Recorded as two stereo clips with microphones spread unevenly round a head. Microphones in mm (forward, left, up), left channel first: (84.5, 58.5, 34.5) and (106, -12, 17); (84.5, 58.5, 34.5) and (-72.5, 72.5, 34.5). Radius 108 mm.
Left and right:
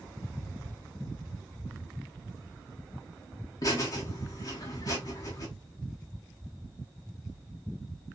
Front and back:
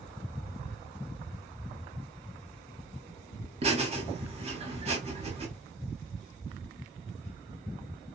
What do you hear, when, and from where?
3.6 s laughter: 130° left, 1.1 m